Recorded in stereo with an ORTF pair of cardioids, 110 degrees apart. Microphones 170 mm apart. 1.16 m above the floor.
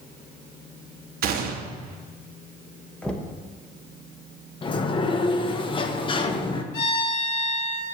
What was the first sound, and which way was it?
A gunshot, 60° right.